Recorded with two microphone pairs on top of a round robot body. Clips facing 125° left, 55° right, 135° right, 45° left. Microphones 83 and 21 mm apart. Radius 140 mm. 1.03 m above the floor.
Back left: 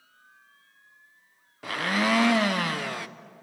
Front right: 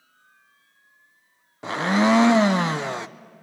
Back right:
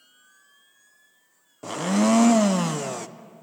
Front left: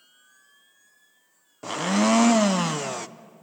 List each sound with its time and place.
1.6 s a blender: 10° right, 0.6 m